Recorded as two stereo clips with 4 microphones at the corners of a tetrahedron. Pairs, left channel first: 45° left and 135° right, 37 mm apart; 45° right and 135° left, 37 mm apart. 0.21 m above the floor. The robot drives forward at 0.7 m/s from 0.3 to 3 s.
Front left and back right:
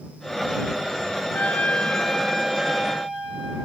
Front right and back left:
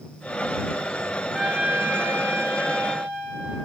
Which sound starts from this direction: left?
A trumpet, at 1.3 s.